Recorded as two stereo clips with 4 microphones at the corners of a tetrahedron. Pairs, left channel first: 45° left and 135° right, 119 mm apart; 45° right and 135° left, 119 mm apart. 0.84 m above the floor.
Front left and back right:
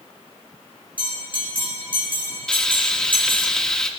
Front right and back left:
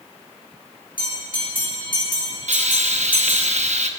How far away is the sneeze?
I don't hear a sneeze.